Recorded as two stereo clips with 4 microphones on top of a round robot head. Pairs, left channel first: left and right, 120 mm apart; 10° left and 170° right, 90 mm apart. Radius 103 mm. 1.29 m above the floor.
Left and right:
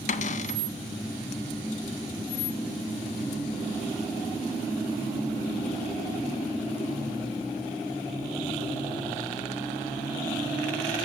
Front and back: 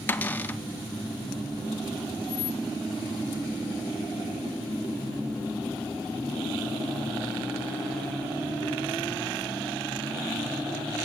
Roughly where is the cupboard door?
Left.